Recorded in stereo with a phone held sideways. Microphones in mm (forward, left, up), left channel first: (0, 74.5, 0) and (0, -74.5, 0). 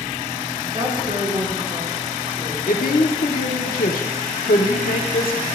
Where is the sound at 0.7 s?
65° right (ahead or behind), 1.5 m.